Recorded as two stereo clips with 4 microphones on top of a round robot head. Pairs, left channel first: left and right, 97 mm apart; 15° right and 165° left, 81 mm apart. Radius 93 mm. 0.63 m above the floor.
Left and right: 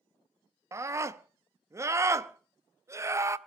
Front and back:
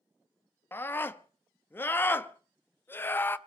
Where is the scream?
55° right, 0.9 m.